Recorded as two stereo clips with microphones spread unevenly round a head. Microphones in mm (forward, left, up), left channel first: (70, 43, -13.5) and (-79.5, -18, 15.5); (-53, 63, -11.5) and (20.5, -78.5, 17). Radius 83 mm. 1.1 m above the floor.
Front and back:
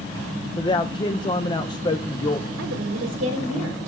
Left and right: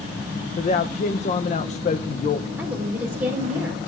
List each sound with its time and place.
0.6 s a man speaking: 80° left, 0.5 m
2.6 s a woman speaking: 145° right, 4 m